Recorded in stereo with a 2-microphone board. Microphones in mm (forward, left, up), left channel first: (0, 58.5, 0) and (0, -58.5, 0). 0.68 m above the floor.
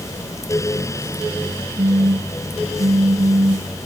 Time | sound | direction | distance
1.8 | a phone buzzing | 65° right (ahead or behind) | ?